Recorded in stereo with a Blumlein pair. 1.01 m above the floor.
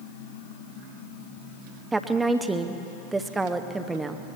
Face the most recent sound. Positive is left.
turn(degrees=-10)